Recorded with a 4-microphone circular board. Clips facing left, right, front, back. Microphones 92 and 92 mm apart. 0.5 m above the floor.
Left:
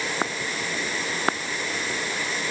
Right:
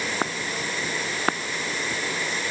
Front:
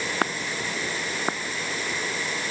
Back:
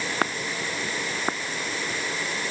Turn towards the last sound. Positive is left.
No sound to turn to.